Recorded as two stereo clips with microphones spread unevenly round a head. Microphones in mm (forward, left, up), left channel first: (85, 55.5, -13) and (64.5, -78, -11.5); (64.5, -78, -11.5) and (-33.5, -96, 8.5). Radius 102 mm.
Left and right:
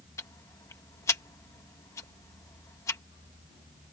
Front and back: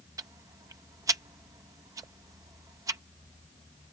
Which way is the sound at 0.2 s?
150° left.